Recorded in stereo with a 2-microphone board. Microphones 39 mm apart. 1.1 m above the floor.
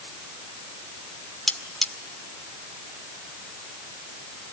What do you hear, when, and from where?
1.5 s cutlery clinking: 5° left (ahead or behind), 1.6 m